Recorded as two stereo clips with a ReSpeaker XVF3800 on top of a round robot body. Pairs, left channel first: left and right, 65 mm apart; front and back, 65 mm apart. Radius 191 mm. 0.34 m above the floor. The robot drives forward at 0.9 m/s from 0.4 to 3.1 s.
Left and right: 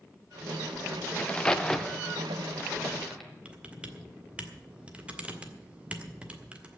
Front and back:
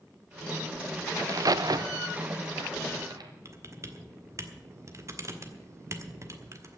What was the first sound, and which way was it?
A crack, 155° left.